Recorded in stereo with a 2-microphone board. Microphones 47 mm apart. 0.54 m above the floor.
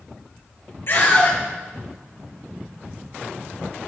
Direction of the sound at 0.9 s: 45° left (ahead or behind).